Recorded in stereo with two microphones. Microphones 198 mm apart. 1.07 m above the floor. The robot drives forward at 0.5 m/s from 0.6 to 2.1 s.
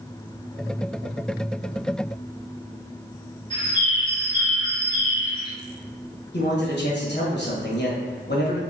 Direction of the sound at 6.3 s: 60° left (ahead or behind).